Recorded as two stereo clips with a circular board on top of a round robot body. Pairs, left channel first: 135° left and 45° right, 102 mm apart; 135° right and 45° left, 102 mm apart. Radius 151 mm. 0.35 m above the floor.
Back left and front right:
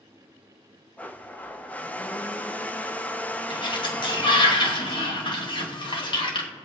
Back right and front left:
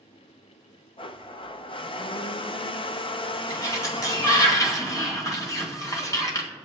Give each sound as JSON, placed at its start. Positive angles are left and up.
{"t": 1.0, "sound": "a blender", "azimuth_deg": -150, "distance_m": 0.7}
{"t": 3.5, "sound": "a sliding door", "azimuth_deg": 170, "distance_m": 1.8}